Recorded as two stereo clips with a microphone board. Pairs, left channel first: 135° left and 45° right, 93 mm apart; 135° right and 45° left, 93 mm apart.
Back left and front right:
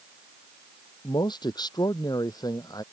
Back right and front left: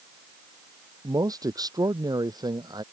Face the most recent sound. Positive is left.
turn(degrees=85)